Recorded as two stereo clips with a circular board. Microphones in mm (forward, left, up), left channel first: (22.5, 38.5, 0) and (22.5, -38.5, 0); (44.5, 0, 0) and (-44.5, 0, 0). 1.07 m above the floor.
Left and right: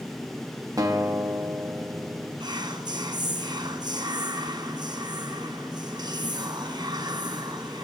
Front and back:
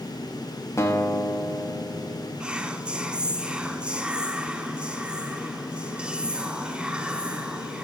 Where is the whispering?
100° right, 1.3 m.